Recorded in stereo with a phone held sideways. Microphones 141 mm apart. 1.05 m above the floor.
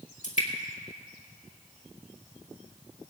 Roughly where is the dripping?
Left.